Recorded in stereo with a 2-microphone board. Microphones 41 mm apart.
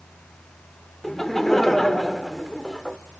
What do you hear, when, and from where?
1.0 s laughter: 5° left (ahead or behind), 1.4 m